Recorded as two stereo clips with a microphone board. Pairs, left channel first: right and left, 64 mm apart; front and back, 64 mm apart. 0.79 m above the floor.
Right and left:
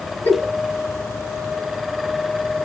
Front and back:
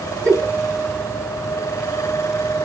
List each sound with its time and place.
0.2 s a giggle: 70° right, 1.6 m